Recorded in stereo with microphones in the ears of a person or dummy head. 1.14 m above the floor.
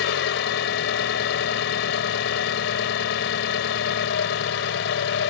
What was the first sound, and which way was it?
An engine running, 75° left (ahead or behind).